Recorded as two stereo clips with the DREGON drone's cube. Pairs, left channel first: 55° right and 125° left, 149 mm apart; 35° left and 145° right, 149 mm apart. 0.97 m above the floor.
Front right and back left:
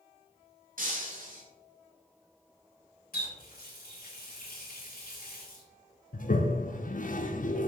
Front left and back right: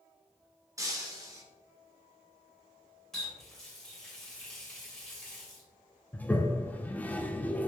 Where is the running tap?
55° right, 2.5 m.